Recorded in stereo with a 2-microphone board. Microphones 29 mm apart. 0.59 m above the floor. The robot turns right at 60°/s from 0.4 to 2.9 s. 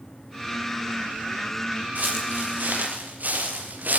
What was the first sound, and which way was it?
Footsteps, 65° right (ahead or behind).